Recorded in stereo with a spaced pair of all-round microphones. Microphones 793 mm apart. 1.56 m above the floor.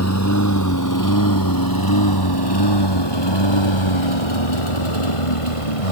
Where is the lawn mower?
20° left (ahead or behind); by 5.9 s 40° left (ahead or behind).